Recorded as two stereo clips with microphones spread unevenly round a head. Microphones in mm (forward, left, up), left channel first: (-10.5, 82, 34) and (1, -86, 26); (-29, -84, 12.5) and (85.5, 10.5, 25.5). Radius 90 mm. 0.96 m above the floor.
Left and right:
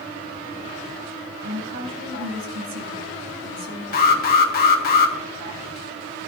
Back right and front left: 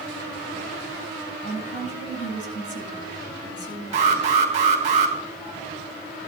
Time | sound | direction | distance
1.4 | a woman speaking | 100° right | 8 m
3.9 | an alarm | 85° left | 1.7 m